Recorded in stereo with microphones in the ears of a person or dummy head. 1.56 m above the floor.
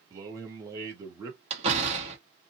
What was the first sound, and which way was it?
A man speaking, 20° right (ahead or behind).